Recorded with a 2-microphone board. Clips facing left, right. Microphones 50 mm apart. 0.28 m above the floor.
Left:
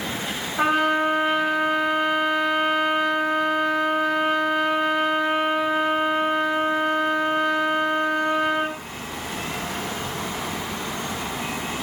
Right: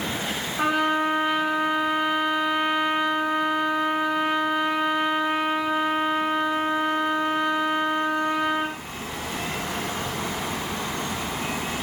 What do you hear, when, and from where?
0.6 s a trumpet: 35° left (ahead or behind), 8.5 m